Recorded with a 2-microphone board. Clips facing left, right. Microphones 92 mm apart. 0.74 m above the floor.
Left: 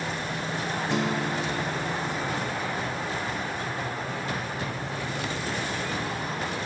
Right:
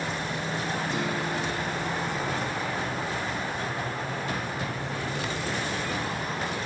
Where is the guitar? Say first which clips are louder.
Left 2 dB; 85° left, 1.6 m.